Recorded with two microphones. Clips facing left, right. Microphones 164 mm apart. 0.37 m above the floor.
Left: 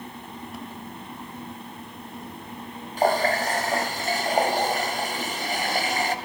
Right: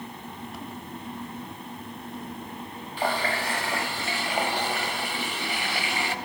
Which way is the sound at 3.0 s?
40° left (ahead or behind).